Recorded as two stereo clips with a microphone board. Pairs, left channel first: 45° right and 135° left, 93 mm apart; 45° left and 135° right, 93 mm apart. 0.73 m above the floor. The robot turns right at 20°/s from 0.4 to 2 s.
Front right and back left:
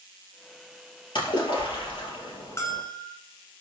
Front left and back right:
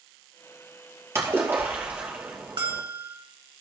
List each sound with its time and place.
1.1 s a splash: 75° right, 4 m; by 2.8 s 60° right, 4 m
2.6 s a bell: 105° right, 2.5 m